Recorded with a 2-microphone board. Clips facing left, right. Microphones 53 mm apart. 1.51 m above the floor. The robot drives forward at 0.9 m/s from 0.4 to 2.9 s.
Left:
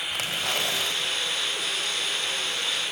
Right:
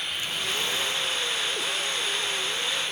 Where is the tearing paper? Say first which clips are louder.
Left 3 dB; 85° left, 6 m; by 1.4 s 80° left, 6 m.